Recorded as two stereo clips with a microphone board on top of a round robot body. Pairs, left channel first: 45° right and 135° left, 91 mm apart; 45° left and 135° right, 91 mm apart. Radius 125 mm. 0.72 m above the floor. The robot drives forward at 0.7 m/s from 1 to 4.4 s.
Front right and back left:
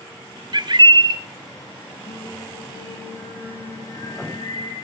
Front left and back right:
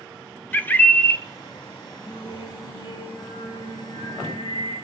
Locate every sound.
0.5 s a bird: 115° left, 1.3 m; by 1.2 s 120° left, 1.3 m
2.1 s singing: 5° left, 6.5 m